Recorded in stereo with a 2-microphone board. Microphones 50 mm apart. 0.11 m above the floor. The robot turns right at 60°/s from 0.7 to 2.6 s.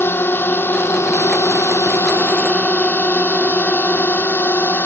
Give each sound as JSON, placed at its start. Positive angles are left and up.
{"t": 0.0, "sound": "a drone", "side_deg": 50}